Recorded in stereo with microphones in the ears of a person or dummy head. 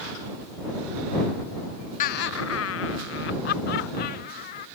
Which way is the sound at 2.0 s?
45° left (ahead or behind).